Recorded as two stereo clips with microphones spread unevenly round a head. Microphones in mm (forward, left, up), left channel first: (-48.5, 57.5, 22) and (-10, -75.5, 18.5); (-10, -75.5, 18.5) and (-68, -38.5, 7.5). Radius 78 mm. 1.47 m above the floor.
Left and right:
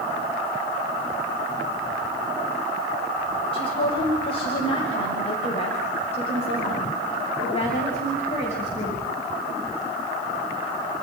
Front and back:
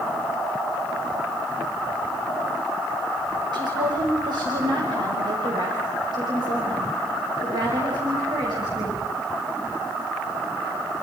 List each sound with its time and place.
3.5 s a woman speaking: 155° left, 5.5 m; by 9.0 s 145° left, 8 m